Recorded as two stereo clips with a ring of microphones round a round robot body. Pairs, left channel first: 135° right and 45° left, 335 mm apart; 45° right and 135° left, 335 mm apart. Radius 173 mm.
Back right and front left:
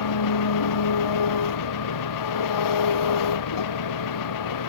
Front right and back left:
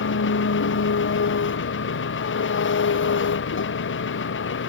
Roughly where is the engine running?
Right.